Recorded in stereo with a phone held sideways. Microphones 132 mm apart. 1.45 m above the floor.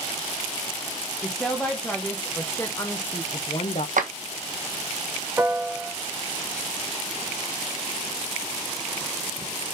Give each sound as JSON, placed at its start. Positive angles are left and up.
{"t": 1.2, "sound": "a woman speaking", "side_deg": 5, "distance_m": 1.6}
{"t": 4.0, "sound": "a clap", "side_deg": -80, "distance_m": 1.4}
{"t": 5.4, "sound": "a piano", "side_deg": -15, "distance_m": 0.6}